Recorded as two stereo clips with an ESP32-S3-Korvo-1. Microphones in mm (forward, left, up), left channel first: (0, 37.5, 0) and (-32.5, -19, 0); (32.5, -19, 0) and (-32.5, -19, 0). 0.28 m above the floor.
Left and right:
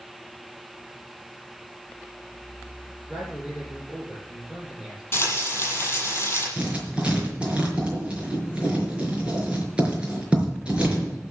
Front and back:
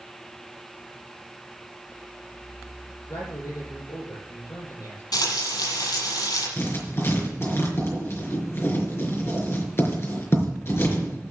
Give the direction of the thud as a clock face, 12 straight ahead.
No thud in this recording.